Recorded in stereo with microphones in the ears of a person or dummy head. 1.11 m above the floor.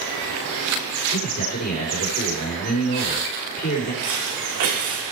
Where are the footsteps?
75° right (ahead or behind), 4 m.